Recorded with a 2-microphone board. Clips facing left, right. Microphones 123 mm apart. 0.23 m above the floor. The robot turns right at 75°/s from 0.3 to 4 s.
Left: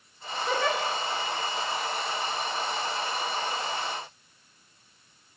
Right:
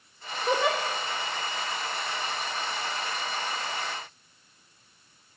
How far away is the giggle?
About 4.5 m.